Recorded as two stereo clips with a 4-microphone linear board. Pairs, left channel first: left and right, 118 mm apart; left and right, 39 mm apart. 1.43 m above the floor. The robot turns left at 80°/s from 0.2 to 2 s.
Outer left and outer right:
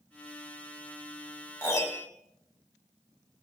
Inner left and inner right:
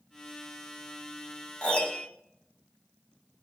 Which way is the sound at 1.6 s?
25° left (ahead or behind).